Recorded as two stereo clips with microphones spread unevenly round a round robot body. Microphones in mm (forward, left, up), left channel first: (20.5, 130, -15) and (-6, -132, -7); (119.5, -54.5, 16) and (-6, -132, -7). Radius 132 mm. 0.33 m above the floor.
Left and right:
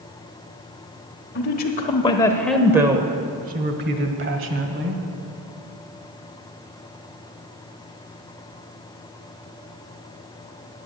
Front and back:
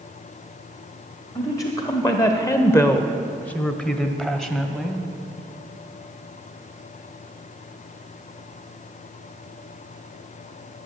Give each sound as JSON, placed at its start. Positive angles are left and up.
{"t": 1.4, "sound": "a woman speaking", "azimuth_deg": 105, "distance_m": 1.1}